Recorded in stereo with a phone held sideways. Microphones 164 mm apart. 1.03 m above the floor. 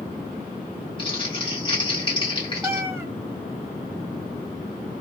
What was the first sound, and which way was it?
Crumpling, 30° left (ahead or behind).